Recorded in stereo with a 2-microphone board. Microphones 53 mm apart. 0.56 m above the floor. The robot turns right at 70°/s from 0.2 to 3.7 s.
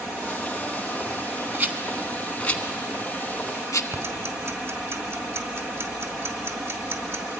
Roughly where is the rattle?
Right.